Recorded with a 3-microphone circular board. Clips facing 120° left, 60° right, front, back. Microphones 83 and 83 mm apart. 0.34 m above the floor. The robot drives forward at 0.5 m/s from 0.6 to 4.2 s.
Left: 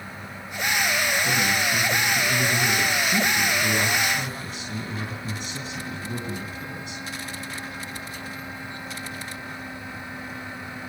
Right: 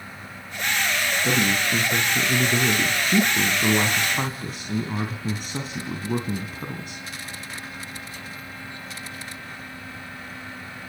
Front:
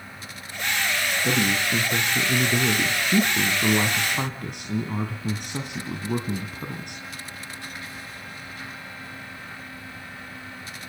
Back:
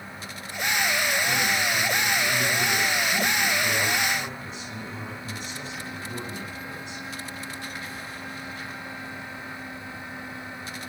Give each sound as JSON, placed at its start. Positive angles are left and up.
{"t": 1.2, "sound": "a man speaking", "azimuth_deg": -10, "distance_m": 4.0}